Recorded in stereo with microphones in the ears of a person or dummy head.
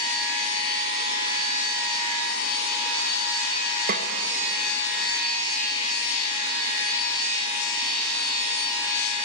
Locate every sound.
3.9 s a snare drum: 45° right (ahead or behind), 1.0 m